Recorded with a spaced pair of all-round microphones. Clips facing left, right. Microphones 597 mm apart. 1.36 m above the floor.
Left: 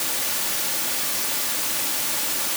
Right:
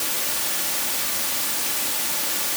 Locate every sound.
Only background noise.